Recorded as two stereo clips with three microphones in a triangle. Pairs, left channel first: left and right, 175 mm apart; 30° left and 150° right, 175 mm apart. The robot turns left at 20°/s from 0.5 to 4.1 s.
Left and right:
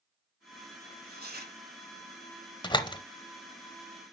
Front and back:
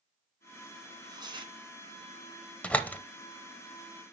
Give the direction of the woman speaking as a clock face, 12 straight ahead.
No woman speaking in this recording.